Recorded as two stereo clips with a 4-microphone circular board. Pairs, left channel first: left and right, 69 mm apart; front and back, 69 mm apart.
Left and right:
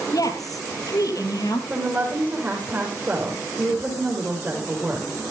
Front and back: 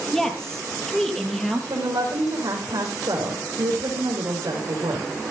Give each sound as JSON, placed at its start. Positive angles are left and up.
{"t": 0.1, "sound": "a woman speaking", "azimuth_deg": 80, "distance_m": 3.0}
{"t": 1.7, "sound": "a woman speaking", "azimuth_deg": -155, "distance_m": 5.5}